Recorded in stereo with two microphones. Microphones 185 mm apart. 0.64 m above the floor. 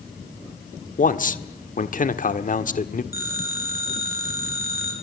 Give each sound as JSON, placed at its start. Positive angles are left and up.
{"t": 1.0, "sound": "a man speaking", "side_deg": 50, "distance_m": 1.3}
{"t": 3.1, "sound": "a phone ringing", "side_deg": 65, "distance_m": 7.0}